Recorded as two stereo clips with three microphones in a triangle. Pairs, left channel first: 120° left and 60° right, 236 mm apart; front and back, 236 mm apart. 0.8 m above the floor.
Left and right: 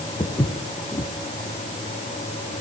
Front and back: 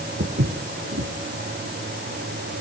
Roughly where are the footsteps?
Behind.